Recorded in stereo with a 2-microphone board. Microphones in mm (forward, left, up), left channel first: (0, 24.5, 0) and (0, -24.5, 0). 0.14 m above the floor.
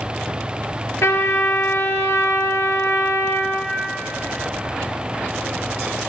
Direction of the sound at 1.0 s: 70° left (ahead or behind).